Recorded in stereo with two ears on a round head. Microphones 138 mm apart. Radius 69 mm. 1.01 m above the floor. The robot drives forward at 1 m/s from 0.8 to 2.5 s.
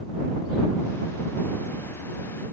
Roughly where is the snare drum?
No snare drum in this recording.